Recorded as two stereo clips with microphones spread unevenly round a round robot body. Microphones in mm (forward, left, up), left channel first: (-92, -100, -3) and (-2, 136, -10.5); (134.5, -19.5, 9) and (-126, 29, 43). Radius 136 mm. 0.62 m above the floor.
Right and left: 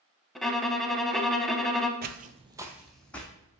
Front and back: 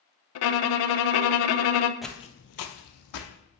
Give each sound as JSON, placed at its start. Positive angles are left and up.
{"t": 0.3, "sound": "a violin", "azimuth_deg": -25, "distance_m": 0.5}
{"t": 2.0, "sound": "footsteps", "azimuth_deg": 90, "distance_m": 0.7}